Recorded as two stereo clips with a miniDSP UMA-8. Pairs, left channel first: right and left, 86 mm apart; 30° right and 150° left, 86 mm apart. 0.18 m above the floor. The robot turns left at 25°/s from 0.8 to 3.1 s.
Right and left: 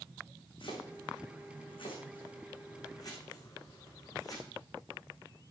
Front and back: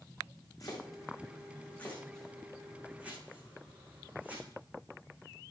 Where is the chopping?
80° right, 6 m; by 4.5 s 135° right, 6 m.